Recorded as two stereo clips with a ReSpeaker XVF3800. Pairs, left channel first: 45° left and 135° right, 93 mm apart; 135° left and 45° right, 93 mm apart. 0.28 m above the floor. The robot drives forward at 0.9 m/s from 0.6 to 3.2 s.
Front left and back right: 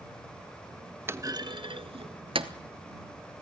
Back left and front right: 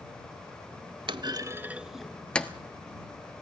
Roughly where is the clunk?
Right.